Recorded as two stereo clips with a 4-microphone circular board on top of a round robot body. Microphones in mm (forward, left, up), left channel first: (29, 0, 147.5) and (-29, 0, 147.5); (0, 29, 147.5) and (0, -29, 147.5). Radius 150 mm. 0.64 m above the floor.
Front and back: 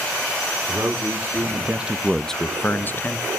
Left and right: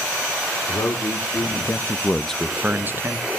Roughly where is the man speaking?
Behind left.